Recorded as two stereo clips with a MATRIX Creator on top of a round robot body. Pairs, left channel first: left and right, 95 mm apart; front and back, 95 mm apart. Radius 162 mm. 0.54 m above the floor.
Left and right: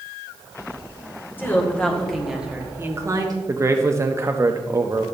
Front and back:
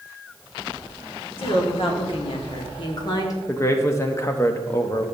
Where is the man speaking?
45° right, 0.8 m.